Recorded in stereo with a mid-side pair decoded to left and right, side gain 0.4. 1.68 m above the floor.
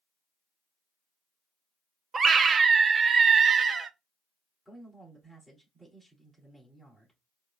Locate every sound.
2.1 s a scream: 50° right, 0.6 m
4.7 s a man speaking: 10° right, 3.5 m